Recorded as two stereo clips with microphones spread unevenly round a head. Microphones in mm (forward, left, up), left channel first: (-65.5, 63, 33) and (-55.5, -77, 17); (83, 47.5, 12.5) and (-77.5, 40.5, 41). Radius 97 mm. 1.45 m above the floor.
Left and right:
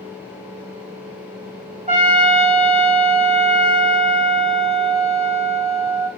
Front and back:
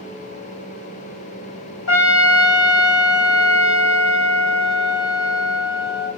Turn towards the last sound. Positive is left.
turn(degrees=-25)